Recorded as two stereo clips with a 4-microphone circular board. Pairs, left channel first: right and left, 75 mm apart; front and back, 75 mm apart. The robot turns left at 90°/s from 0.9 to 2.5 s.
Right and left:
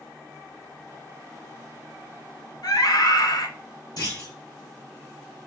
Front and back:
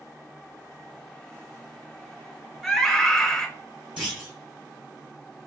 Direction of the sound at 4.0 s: 105° right.